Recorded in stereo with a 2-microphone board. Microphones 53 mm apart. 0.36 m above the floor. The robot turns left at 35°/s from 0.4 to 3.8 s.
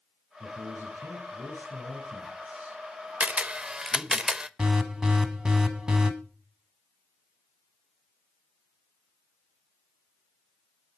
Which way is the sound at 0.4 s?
80° right.